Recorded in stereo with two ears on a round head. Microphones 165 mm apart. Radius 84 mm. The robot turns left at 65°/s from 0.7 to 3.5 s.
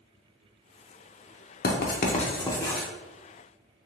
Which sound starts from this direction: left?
Writing, at 1.6 s.